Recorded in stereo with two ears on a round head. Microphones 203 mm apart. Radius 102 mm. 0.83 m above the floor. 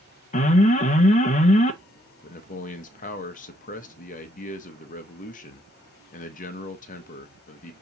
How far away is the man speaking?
About 0.5 m.